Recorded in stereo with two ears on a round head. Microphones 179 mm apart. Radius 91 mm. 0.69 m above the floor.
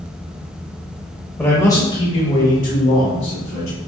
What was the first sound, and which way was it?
A man speaking, 10° left (ahead or behind).